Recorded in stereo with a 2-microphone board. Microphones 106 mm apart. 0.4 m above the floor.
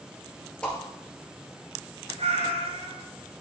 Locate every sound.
0.6 s a whoosh: 10° left (ahead or behind), 2 m
2.2 s a cat meowing: 80° right, 1.0 m